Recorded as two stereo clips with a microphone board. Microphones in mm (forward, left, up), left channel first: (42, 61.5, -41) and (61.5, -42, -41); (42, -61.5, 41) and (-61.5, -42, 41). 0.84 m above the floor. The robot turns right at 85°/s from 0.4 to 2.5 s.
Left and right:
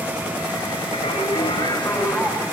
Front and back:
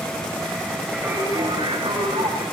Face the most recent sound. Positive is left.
turn(degrees=-145)